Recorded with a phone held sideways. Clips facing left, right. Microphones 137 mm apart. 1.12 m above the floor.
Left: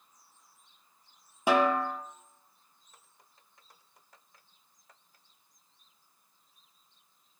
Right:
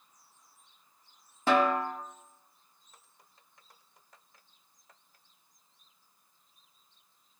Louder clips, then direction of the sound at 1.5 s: Even; 15° left (ahead or behind).